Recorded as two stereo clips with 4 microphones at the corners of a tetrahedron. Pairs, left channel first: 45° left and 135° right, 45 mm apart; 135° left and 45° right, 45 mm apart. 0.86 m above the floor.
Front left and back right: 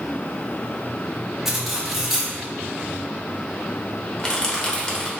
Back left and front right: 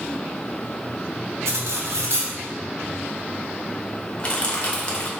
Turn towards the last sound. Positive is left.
turn(degrees=100)